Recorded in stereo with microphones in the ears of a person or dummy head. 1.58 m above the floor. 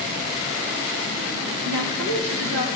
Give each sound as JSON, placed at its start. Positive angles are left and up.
{"t": 1.6, "sound": "a woman speaking", "side_deg": -85, "distance_m": 2.0}